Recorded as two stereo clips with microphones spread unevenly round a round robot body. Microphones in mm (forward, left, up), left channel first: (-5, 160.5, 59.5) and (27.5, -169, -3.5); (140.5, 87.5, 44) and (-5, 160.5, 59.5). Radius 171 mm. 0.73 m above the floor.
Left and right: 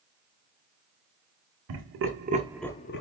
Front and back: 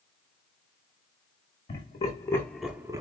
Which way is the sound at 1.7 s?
80° right.